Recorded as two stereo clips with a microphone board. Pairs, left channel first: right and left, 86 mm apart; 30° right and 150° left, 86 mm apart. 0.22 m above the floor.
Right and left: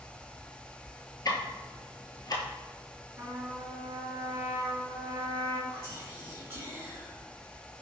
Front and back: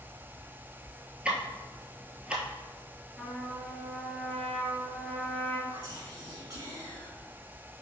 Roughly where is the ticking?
Behind right.